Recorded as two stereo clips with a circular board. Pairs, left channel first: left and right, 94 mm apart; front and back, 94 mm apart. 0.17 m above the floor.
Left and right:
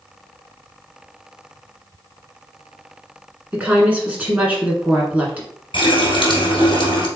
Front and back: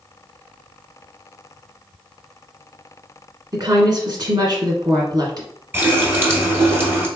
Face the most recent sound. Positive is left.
turn(degrees=115)